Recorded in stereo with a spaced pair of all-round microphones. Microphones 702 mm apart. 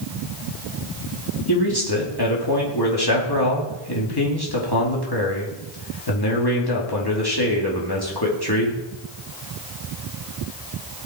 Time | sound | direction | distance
1.5 | a man speaking | 30° left (ahead or behind) | 3 m